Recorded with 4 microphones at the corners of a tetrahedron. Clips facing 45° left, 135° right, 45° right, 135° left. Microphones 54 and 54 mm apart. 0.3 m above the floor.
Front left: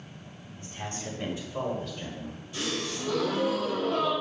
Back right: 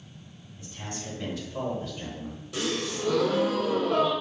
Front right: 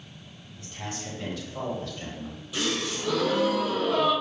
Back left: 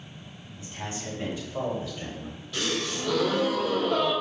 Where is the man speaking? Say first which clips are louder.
Front left 1 dB, back left 1 dB; 70° left, 1.9 m; by 2.4 s 135° right, 1.4 m.